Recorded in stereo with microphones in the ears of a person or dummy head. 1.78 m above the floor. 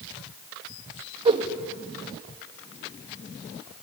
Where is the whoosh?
30° right (ahead or behind), 1.6 m.